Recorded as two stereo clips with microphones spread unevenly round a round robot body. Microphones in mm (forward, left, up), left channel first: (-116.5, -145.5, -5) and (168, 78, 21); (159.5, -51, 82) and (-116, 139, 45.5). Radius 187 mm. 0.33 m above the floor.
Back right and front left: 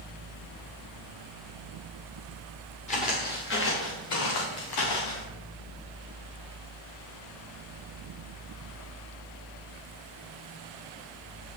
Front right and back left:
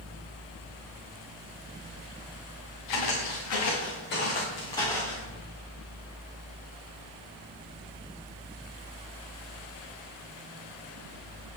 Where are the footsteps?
70° right, 3 m; by 5.2 s 125° right, 2.5 m.